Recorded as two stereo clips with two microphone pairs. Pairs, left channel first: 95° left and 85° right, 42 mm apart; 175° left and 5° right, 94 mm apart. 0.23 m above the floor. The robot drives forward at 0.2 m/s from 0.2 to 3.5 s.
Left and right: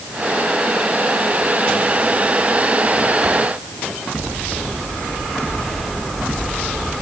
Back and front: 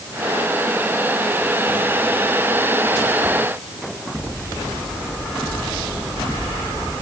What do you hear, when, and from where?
Only background noise.